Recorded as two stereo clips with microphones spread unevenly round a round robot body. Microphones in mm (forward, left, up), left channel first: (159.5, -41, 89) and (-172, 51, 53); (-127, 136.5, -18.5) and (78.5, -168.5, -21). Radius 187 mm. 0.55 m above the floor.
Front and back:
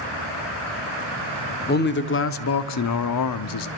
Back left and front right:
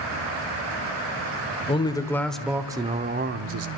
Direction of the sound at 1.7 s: 50° left.